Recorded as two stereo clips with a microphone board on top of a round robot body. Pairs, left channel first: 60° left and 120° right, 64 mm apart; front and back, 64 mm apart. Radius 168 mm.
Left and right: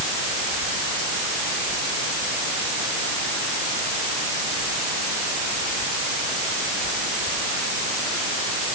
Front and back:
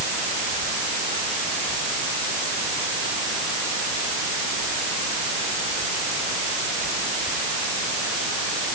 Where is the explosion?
I don't hear an explosion.